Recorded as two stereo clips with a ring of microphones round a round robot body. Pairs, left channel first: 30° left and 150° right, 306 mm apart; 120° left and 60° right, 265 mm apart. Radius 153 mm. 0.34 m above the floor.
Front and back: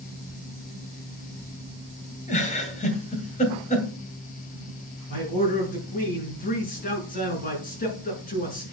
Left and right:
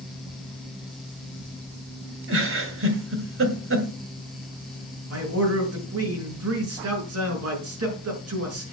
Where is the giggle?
35° right, 2 m.